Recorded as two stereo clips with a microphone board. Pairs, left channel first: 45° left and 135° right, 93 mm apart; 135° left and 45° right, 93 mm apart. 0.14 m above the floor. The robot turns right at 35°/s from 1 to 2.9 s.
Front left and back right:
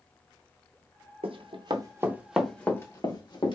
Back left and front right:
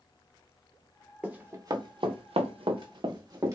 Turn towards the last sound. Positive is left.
turn(degrees=10)